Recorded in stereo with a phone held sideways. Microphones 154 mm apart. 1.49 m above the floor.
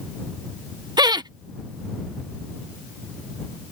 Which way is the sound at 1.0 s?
25° right (ahead or behind).